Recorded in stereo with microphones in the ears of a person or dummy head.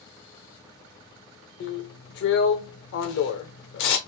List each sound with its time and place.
1.6 s a drill: 60° left (ahead or behind), 0.6 m